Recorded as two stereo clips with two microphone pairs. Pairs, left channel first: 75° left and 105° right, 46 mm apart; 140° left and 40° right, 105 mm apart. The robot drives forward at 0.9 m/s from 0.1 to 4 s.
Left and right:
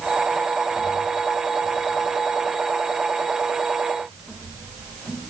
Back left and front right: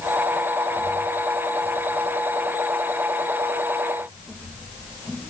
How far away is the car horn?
No car horn in this recording.